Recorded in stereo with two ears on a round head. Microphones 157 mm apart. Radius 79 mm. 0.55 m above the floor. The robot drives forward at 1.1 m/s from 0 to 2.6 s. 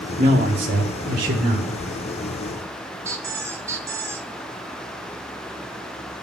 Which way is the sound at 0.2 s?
50° right (ahead or behind).